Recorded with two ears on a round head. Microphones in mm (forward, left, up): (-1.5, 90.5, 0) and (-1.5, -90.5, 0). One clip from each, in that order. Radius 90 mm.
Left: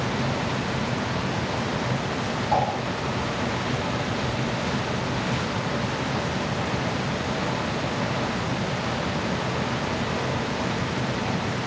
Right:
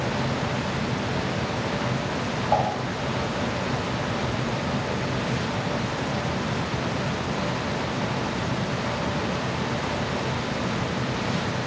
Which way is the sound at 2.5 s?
5° right (ahead or behind).